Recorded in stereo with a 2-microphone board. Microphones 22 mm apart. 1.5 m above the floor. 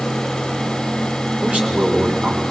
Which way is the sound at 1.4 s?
85° right.